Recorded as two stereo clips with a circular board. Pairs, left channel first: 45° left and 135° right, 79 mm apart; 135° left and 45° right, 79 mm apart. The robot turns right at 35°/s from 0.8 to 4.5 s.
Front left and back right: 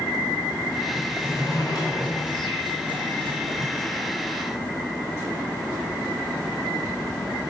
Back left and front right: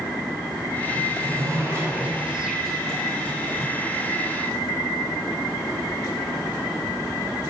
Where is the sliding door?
15° right, 6 m; by 3.7 s 80° left, 6 m.